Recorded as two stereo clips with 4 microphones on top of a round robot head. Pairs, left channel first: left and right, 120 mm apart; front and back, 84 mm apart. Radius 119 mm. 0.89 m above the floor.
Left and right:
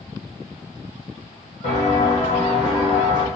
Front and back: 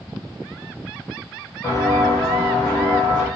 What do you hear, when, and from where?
1.6 s footsteps: 55° left, 1.5 m; by 3.3 s 40° right, 1.6 m